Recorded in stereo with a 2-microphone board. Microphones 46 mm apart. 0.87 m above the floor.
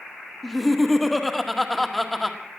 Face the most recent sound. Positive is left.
turn(degrees=0)  # may be behind; listen again after turning